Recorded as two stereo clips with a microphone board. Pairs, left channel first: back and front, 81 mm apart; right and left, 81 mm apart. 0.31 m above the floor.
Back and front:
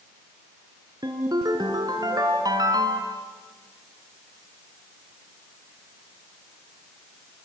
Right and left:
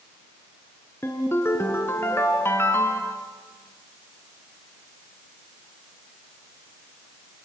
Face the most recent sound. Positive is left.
turn(degrees=-30)